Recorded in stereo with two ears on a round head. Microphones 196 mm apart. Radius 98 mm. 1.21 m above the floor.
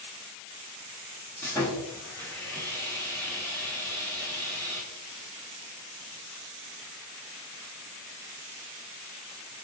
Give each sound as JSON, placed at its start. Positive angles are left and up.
{"t": 1.4, "sound": "sawing", "side_deg": 10, "distance_m": 0.8}